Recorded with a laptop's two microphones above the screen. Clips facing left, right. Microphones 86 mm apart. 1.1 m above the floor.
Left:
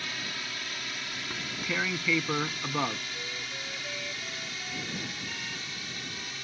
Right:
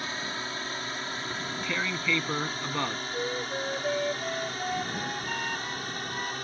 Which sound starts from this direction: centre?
Tearing paper, at 1.3 s.